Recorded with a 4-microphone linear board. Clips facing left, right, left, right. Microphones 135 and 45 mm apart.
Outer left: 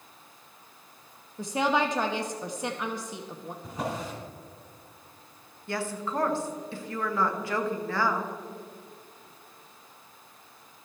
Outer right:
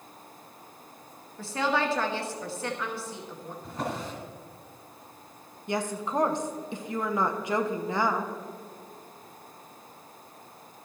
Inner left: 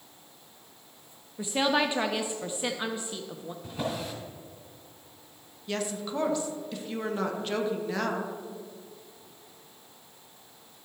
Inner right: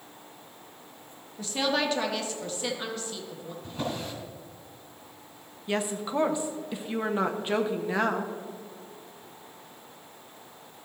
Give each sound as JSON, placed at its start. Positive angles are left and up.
{"t": 1.4, "sound": "a woman speaking", "side_deg": 15, "distance_m": 0.7}
{"t": 3.6, "sound": "a drawer", "side_deg": 10, "distance_m": 3.0}
{"t": 5.7, "sound": "a woman speaking", "side_deg": -20, "distance_m": 0.9}